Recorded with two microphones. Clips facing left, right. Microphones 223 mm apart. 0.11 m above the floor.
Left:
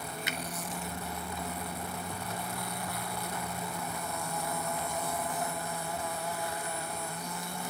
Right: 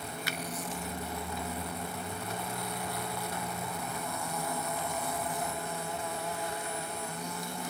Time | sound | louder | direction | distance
0.3 | a finger snap | left 1 dB | 20° left (ahead or behind) | 0.9 m